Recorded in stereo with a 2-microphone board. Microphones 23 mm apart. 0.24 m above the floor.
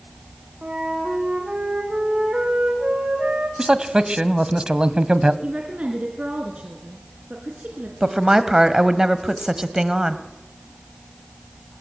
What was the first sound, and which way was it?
A flute, 55° right (ahead or behind).